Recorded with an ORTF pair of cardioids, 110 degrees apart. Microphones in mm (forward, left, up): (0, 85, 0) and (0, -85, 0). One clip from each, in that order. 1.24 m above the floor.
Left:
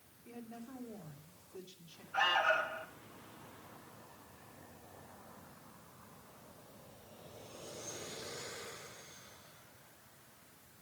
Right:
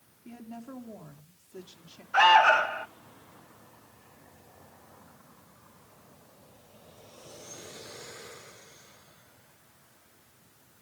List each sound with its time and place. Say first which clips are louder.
0.2 s a woman speaking: right 5 dB; 35° right, 2.5 m
2.1 s an alarm: right 12 dB; 65° right, 0.9 m